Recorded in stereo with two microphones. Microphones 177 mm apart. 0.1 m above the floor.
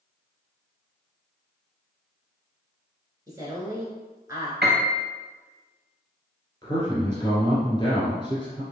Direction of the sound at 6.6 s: 25° left (ahead or behind).